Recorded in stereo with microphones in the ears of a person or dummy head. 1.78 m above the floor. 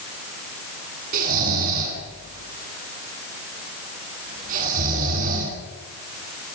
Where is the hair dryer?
No hair dryer in this recording.